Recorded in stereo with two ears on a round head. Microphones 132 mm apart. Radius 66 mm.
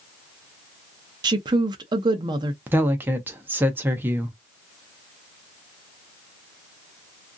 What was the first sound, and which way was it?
A woman speaking, 30° right (ahead or behind).